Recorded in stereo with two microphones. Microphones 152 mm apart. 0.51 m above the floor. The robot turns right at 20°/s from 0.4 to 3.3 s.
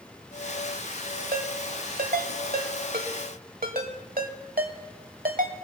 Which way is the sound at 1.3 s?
70° right (ahead or behind).